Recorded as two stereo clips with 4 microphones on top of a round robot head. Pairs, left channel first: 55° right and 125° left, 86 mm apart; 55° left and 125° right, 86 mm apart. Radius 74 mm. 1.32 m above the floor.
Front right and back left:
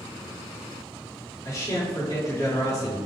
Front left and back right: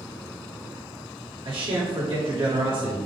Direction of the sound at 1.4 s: 105° right.